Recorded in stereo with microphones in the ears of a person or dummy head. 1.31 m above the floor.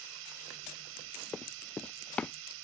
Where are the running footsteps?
5° left (ahead or behind).